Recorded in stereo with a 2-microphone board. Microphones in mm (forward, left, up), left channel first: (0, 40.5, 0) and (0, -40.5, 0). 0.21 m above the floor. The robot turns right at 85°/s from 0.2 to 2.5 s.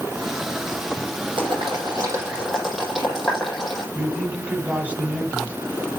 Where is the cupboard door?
No cupboard door in this recording.